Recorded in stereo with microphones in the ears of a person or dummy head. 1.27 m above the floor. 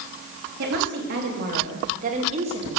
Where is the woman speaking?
65° right (ahead or behind), 3 m; by 2.8 s 35° right (ahead or behind), 2 m.